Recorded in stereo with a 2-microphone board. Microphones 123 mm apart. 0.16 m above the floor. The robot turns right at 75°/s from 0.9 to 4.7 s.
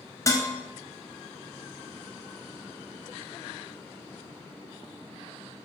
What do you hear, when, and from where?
0.3 s dishes clattering: 25° left (ahead or behind), 1.5 m